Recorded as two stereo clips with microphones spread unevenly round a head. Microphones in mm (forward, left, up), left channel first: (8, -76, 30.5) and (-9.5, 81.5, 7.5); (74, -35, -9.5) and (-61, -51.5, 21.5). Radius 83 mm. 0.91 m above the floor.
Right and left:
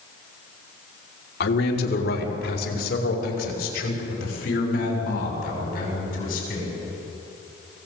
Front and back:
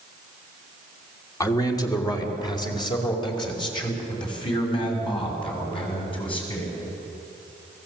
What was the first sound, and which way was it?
A man speaking, 55° right.